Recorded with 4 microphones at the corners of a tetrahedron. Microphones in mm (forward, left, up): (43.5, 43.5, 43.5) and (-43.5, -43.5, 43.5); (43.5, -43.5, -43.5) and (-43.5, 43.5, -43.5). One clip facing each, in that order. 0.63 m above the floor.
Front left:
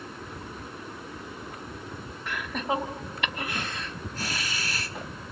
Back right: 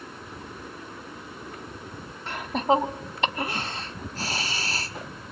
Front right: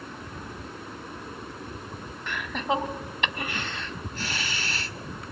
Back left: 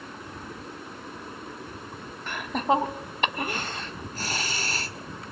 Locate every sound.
2.3 s laughter: 175° left, 1.7 m